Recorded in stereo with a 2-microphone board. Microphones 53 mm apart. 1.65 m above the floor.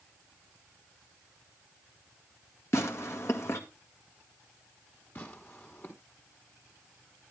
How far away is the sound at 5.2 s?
About 2.5 m.